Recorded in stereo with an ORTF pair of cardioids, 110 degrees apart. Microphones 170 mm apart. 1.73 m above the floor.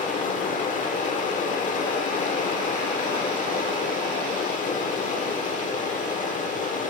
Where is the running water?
50° left, 1.1 m.